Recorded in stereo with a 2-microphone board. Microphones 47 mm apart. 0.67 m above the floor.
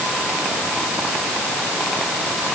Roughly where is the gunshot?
No gunshot in this recording.